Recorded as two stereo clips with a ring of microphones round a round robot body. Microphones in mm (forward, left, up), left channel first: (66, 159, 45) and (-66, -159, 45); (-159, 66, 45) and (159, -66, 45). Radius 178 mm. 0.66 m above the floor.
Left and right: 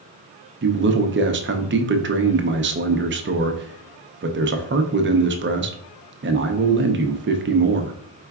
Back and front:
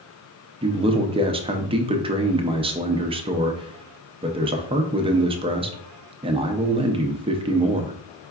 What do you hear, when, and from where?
0.6 s a man speaking: 85° right, 0.6 m